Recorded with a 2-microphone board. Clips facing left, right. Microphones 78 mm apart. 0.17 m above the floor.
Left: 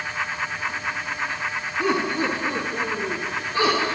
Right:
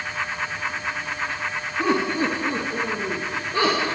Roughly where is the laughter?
Right.